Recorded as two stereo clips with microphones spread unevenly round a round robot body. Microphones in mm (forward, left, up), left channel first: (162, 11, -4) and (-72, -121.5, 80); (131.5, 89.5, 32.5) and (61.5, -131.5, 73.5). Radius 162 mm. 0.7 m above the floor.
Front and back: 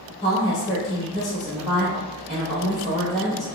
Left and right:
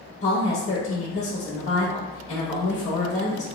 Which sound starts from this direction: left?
A woman speaking, at 0.2 s.